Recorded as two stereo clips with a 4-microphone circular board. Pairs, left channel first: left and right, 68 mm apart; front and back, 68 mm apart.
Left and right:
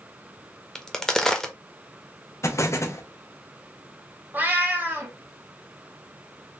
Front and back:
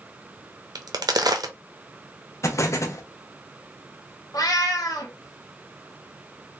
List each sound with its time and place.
0.8 s a crack: 175° left, 0.6 m
2.4 s an explosion: 45° left, 0.6 m
4.3 s a cat meowing: 25° right, 0.8 m